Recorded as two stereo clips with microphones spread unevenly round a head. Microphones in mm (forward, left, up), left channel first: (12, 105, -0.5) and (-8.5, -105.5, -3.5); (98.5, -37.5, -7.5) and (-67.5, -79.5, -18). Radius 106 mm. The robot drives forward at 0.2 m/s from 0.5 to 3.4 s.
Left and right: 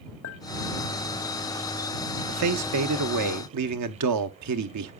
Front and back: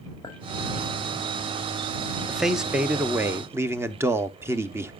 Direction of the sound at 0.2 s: 85° left.